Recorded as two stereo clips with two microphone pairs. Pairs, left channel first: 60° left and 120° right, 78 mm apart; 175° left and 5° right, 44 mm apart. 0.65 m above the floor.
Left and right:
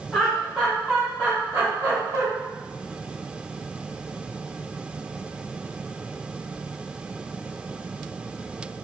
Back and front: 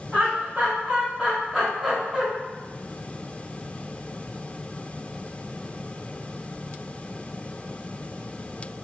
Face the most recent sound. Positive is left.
turn(degrees=-85)